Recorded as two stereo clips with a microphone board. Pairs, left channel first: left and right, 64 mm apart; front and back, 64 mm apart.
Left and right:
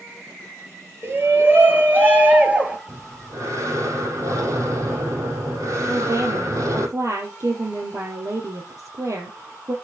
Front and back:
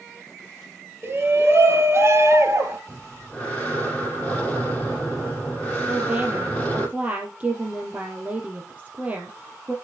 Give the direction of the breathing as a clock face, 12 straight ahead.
2 o'clock.